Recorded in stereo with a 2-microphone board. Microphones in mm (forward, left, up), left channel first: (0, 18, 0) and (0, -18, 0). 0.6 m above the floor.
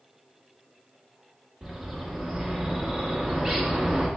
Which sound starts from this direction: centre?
A bird, at 1.6 s.